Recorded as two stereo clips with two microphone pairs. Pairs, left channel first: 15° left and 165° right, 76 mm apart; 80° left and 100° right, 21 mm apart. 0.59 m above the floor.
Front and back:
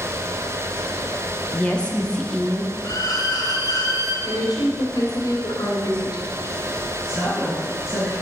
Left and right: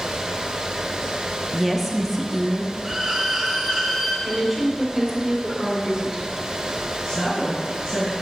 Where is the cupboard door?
I don't hear a cupboard door.